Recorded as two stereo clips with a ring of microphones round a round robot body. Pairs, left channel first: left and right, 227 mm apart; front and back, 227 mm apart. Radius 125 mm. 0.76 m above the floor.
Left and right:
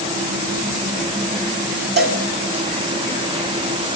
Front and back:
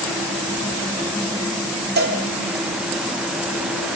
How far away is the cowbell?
About 6 m.